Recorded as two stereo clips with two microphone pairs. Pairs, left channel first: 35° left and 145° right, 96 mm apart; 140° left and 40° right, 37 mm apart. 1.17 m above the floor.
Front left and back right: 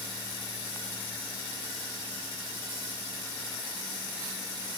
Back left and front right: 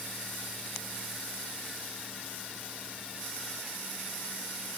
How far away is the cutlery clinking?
I don't hear cutlery clinking.